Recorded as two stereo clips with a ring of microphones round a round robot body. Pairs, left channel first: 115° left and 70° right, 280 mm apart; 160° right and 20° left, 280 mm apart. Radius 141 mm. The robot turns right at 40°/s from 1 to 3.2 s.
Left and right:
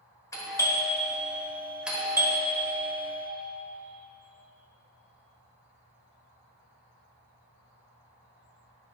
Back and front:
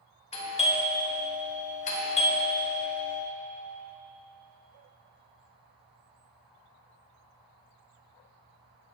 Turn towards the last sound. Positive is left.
turn(degrees=-95)